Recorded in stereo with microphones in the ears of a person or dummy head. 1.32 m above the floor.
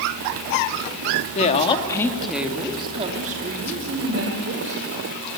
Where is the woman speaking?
40° left (ahead or behind), 2 m; by 4.9 s 60° right (ahead or behind), 4.5 m.